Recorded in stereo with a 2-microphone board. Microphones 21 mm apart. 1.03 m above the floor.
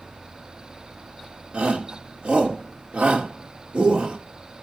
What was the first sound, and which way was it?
A shout, 75° right (ahead or behind).